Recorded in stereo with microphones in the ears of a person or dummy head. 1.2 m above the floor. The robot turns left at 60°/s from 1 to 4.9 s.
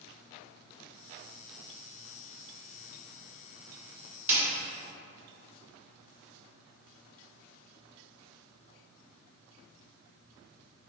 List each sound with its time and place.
4.3 s a snare drum: 10° right (ahead or behind), 1.4 m; by 4.4 s 20° right (ahead or behind), 1.4 m